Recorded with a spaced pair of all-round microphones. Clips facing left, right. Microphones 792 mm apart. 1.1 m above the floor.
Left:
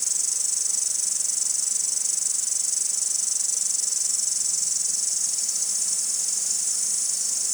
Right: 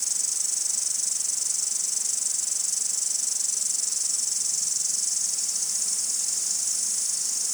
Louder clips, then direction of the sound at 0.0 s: Left 1 dB; 15° left (ahead or behind).